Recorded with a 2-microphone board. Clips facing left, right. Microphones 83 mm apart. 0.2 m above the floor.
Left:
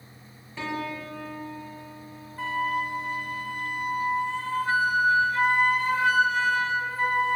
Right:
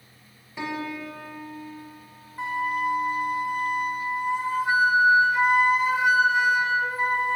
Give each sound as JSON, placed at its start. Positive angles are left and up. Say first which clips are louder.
{"t": 0.6, "sound": "a piano", "louder": "right 1 dB", "side_deg": -15, "distance_m": 1.3}
{"t": 2.4, "sound": "a flute", "louder": "right 1 dB", "side_deg": -20, "distance_m": 0.6}